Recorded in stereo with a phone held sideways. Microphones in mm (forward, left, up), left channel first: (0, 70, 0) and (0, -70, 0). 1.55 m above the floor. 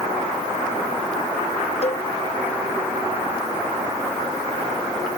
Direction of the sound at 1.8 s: 50° left (ahead or behind).